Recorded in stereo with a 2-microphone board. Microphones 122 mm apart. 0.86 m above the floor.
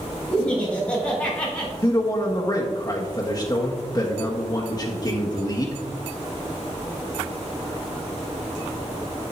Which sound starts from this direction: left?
A man speaking, at 1.8 s.